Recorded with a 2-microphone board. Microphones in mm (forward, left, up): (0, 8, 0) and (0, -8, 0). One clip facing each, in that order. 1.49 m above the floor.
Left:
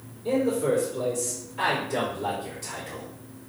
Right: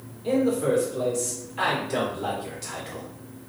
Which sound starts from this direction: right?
A man speaking, at 0.2 s.